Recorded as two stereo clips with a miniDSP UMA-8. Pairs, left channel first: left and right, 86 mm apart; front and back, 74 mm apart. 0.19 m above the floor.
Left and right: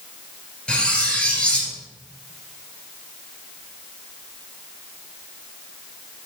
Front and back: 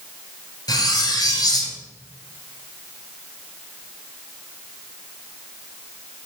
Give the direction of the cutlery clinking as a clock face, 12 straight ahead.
12 o'clock.